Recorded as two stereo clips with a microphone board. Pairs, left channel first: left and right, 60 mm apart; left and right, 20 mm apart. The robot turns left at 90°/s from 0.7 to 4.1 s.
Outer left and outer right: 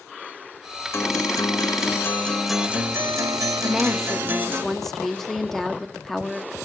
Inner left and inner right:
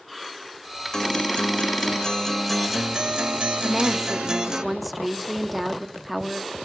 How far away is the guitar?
About 0.7 m.